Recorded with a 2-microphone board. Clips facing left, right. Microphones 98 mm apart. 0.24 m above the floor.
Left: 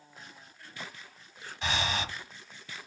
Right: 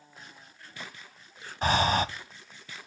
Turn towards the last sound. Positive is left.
turn(degrees=-45)  # may be behind; listen again after turning